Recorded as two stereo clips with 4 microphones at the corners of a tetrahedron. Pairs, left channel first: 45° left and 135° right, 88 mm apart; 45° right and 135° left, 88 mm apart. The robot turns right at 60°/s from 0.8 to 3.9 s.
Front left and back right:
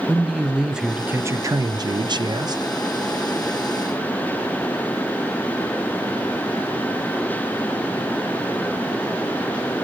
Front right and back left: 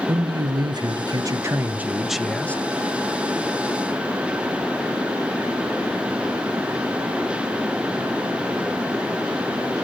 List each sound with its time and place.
0.1 s a man speaking: 140° left, 0.6 m; by 2.6 s 110° right, 0.6 m